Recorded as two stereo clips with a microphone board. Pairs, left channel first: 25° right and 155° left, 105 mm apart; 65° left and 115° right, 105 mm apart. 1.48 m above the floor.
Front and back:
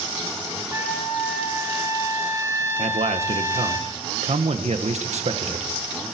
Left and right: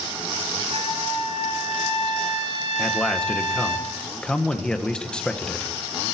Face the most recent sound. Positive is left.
turn(degrees=150)